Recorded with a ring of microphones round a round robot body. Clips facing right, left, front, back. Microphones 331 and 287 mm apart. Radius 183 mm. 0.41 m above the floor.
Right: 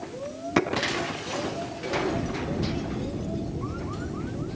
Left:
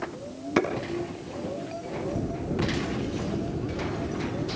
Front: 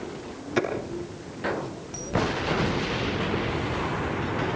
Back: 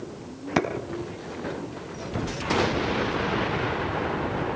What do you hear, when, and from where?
0.6 s a clap: straight behind, 4 m